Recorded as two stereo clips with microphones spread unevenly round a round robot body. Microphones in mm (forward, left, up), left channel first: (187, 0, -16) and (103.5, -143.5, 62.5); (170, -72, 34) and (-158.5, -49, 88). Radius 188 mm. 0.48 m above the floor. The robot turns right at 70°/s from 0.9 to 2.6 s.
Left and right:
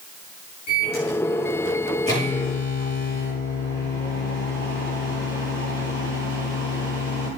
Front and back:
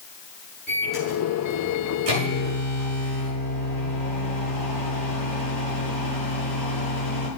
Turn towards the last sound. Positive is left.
turn(degrees=-160)